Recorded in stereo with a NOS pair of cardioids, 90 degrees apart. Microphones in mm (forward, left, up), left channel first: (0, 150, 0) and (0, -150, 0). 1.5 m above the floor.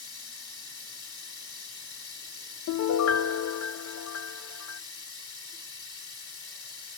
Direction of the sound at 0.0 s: 45° left.